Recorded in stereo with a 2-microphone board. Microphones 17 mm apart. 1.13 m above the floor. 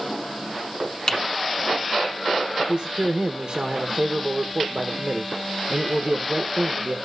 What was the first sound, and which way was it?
Typing on a keyboard, 40° left (ahead or behind).